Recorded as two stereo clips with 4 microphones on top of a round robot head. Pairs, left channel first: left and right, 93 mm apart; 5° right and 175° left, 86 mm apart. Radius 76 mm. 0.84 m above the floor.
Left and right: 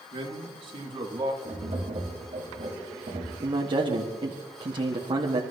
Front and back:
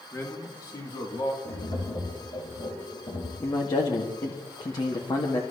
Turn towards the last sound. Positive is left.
turn(degrees=-50)